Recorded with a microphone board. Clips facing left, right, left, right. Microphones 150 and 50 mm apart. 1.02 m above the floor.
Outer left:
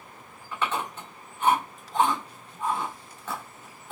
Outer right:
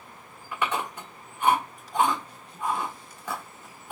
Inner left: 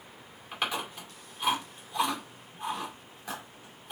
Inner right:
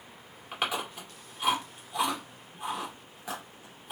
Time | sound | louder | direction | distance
0.5 | chewing | outer right 1 dB, inner right 1 dB | 10° right (ahead or behind) | 1.9 m